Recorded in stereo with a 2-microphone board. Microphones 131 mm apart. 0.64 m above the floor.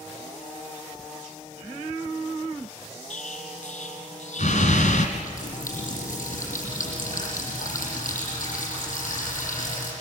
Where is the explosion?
70° left (ahead or behind), 2.5 m.